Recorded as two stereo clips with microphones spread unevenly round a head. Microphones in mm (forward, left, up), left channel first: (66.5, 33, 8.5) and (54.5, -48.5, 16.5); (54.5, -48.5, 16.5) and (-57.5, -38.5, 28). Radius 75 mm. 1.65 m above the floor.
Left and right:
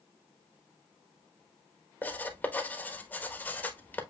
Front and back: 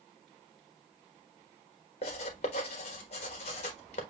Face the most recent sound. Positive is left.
turn(degrees=15)